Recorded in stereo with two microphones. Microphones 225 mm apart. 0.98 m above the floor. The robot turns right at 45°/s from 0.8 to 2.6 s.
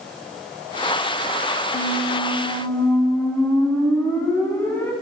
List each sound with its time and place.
1.7 s a squeak: 130° left, 1.6 m; by 4.9 s 165° left, 1.6 m